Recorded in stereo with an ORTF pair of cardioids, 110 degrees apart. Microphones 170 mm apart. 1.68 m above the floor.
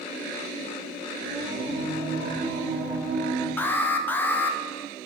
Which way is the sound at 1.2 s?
45° right.